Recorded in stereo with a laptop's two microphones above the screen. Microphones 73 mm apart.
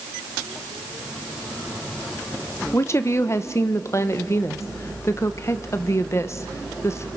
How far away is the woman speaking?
About 0.6 m.